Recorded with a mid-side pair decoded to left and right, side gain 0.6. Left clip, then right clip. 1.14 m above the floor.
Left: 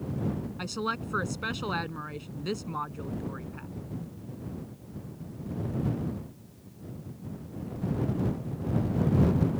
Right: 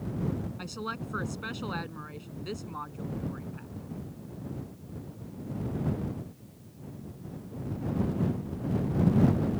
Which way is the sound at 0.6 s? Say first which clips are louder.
Left 9 dB; 25° left.